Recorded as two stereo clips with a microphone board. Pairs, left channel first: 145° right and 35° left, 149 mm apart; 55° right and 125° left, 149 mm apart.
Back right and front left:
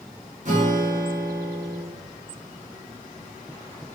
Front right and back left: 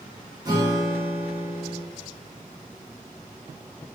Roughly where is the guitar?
Ahead left.